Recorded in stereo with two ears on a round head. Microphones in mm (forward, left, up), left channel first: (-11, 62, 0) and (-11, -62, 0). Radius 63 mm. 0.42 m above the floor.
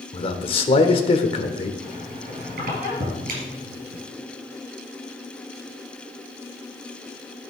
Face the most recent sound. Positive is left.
turn(degrees=-70)  # may be behind; listen again after turning